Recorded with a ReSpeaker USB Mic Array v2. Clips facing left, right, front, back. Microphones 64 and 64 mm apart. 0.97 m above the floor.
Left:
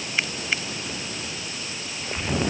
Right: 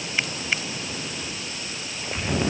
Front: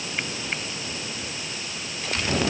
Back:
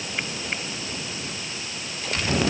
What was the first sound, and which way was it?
Only background noise.